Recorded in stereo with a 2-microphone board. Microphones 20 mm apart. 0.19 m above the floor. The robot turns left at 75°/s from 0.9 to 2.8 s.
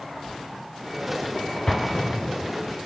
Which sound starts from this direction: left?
An explosion, at 1.7 s.